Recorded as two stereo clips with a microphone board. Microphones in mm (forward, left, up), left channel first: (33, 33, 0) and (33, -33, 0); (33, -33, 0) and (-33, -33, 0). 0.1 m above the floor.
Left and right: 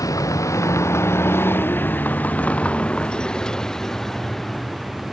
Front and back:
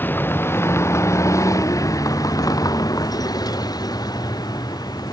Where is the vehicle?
60° left; by 5.1 s straight ahead.